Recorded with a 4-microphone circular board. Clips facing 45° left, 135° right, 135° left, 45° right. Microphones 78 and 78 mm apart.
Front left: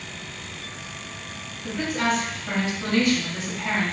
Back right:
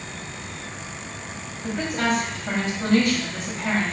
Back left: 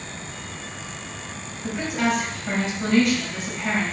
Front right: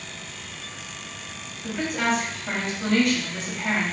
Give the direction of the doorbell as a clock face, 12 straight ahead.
No doorbell in this recording.